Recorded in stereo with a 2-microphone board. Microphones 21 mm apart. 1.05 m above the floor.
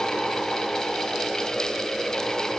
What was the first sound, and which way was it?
Only background noise.